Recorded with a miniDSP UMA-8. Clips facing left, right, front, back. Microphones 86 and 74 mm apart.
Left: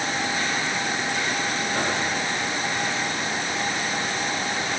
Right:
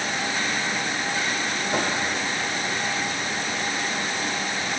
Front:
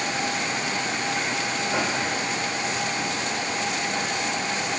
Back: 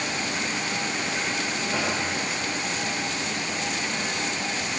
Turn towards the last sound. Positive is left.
turn(degrees=-80)